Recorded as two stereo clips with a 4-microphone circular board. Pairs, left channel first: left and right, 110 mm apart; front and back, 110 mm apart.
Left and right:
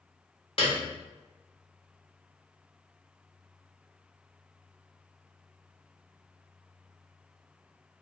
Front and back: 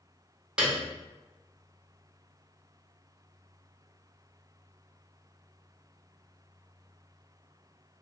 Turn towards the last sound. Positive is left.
turn(degrees=100)